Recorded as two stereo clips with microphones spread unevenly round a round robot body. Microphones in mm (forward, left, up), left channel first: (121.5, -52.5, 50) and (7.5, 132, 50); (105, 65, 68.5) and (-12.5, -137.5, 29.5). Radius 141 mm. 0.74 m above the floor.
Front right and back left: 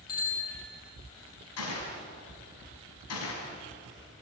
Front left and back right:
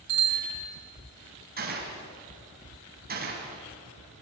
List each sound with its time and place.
0.1 s a bicycle bell: 120° right, 6.5 m
1.6 s a gunshot: 70° right, 6 m